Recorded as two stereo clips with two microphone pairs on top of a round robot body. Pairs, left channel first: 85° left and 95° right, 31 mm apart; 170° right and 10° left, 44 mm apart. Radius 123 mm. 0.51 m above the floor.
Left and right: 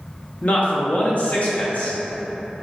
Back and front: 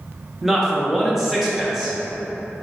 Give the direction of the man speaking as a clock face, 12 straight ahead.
9 o'clock.